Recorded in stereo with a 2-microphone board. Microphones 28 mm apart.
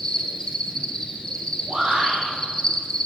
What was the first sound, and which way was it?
An insect, 25° left (ahead or behind).